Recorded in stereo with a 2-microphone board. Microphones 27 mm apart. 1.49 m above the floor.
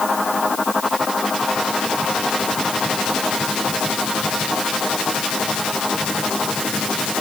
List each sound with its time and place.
Only background noise.